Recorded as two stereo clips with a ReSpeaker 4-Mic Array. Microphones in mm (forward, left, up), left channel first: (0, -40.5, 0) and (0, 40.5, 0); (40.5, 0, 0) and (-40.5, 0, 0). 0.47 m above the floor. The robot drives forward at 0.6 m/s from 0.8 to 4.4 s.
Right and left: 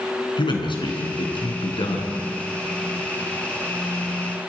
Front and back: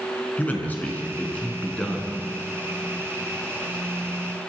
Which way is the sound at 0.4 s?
70° right.